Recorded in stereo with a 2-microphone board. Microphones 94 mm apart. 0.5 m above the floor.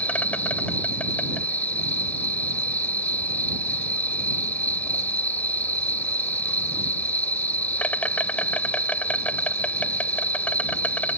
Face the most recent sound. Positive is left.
turn(degrees=15)  # may be behind; listen again after turning